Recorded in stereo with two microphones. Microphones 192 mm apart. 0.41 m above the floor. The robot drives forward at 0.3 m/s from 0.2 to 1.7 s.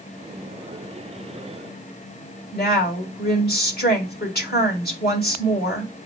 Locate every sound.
2.5 s a woman speaking: 55° left (ahead or behind), 2 m